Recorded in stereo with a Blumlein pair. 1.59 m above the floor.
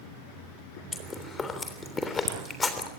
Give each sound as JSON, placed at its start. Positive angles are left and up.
{"t": 0.9, "sound": "chewing", "azimuth_deg": 15, "distance_m": 3.0}